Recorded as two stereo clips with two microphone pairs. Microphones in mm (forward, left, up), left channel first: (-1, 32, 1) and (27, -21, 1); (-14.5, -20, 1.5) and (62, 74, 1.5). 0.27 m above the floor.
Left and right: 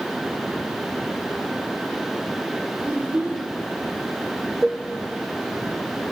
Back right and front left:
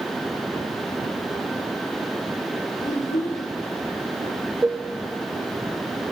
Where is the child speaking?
120° right, 8.5 m.